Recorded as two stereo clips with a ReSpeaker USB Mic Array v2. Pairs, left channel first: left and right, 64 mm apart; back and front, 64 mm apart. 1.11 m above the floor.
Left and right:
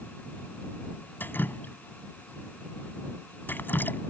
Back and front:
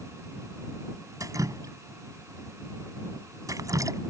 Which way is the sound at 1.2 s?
30° left.